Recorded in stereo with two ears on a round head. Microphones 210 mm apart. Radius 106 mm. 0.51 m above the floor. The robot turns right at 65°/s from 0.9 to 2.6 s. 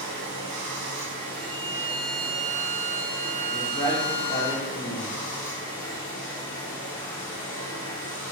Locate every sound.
0.0 s running water: 75° right, 0.8 m; by 8.3 s 35° left, 0.8 m
1.4 s a violin: 110° left, 0.6 m; by 4.5 s 170° right, 0.6 m
3.5 s a man speaking: 15° left (ahead or behind), 0.8 m